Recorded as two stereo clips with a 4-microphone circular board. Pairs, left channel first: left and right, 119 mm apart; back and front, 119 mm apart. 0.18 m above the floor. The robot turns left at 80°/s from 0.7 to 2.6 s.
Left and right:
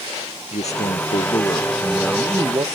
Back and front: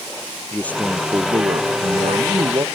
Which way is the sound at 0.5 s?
105° left.